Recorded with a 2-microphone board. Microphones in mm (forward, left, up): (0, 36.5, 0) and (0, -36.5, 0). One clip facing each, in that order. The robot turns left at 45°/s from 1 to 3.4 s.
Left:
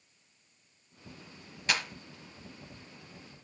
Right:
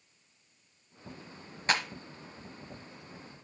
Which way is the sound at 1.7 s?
40° right (ahead or behind).